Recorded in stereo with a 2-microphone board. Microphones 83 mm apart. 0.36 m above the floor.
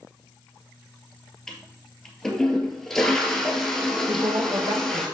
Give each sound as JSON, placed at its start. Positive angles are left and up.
{"t": 1.5, "sound": "a toilet flushing", "side_deg": 5, "distance_m": 1.8}
{"t": 4.1, "sound": "a woman speaking", "side_deg": -50, "distance_m": 2.0}